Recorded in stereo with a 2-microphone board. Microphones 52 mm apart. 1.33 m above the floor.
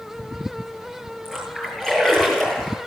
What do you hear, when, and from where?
1.2 s a splash: 10° left (ahead or behind), 9.5 m